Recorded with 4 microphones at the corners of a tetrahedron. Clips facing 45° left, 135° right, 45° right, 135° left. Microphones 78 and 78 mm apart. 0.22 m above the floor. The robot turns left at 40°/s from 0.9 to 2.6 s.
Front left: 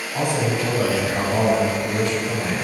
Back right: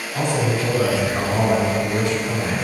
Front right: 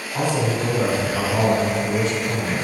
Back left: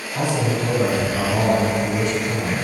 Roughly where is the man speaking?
Ahead right.